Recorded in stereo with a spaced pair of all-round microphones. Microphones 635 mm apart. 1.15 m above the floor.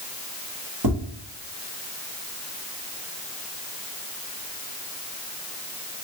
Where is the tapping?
35° right (ahead or behind), 1.3 m.